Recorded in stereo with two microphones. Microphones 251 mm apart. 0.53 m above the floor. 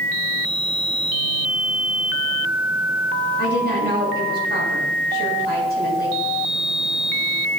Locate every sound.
3.4 s a woman speaking: 40° right (ahead or behind), 3 m